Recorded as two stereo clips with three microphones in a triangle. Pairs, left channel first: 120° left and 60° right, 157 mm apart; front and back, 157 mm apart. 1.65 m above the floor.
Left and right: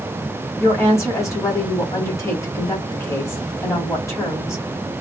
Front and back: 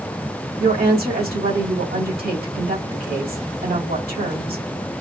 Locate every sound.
0.6 s a woman speaking: 170° right, 2.5 m